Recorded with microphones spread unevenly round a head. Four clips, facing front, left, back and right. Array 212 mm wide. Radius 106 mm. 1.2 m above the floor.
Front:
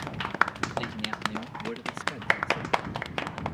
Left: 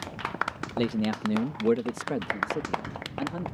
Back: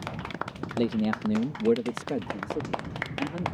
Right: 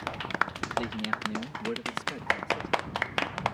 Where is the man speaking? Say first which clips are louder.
Left 5 dB, back 6 dB; 150° left; by 3.5 s 135° left.